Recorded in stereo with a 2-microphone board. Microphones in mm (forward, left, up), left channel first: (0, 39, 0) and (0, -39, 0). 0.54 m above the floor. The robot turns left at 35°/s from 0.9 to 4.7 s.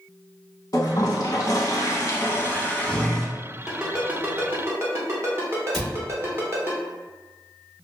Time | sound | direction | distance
0.7 | a toilet flushing | 90° left | 0.5 m
3.7 | a ringtone | 5° right (ahead or behind) | 0.8 m
5.7 | a cupboard door | 5° left (ahead or behind) | 1.2 m